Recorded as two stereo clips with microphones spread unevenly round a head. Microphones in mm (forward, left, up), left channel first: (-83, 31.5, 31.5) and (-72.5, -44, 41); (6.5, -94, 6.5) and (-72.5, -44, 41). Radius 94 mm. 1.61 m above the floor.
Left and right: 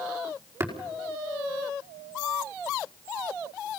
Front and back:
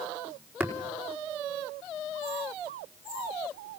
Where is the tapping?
140° right, 5 m.